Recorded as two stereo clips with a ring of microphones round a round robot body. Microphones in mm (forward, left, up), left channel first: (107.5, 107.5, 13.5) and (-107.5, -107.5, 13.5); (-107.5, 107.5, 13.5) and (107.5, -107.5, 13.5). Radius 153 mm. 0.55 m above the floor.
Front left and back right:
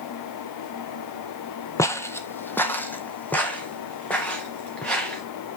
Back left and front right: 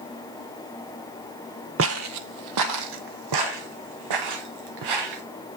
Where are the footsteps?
30° right, 0.6 m; by 5.2 s 40° right, 2.5 m.